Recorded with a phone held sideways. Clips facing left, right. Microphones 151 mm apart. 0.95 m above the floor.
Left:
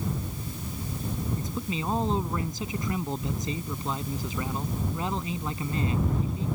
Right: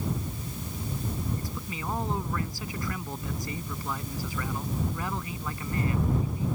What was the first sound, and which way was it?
A man speaking, 20° left (ahead or behind).